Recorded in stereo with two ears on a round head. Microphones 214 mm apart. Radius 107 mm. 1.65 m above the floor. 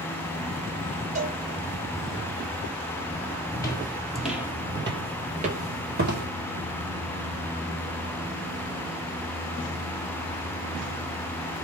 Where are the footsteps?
15° left (ahead or behind), 1.9 m; by 6.3 s 45° right (ahead or behind), 2.5 m.